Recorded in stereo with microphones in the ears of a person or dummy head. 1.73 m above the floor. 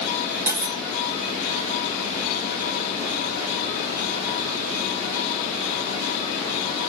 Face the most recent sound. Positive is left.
turn(degrees=-15)  # may be behind; listen again after turning